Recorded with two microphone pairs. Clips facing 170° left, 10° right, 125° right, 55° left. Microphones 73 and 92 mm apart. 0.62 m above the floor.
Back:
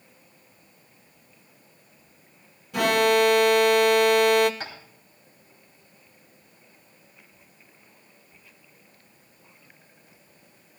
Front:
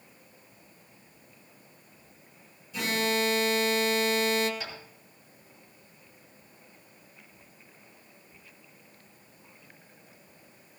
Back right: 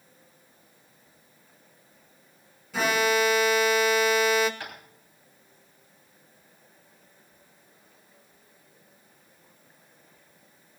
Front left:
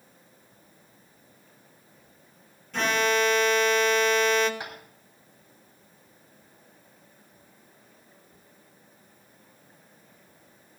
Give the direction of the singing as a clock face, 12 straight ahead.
I don't hear singing.